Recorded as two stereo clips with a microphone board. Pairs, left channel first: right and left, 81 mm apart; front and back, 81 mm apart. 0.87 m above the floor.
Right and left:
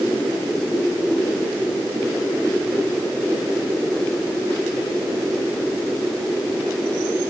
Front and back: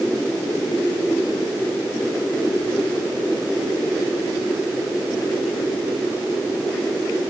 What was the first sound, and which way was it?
Only background noise.